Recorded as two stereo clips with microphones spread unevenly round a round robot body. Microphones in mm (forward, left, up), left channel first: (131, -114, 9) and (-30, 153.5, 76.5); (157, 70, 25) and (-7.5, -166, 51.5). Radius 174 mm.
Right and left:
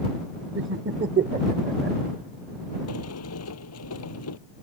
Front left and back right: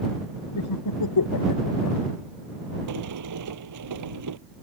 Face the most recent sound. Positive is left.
turn(degrees=-105)